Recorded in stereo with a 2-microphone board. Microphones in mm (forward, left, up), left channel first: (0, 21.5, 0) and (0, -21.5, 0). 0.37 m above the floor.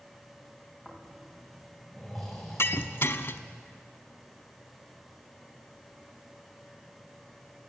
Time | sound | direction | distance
0.8 | snoring | 5° right (ahead or behind) | 6 m
2.6 | breaking glass | 75° left (ahead or behind) | 0.9 m